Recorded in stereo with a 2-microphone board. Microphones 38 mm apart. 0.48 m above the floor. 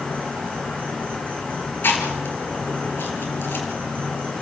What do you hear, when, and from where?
0.0 s an insect: 40° left (ahead or behind), 6.5 m
1.8 s chewing: 70° left (ahead or behind), 4 m